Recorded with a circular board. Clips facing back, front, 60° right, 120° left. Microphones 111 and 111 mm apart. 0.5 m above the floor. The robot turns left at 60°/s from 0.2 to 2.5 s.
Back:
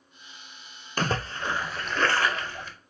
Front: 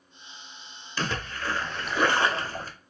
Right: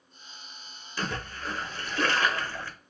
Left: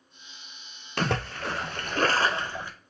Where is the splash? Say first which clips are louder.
Back 3 dB, left 6 dB; 140° left, 0.5 m; by 2.7 s 50° left, 0.5 m.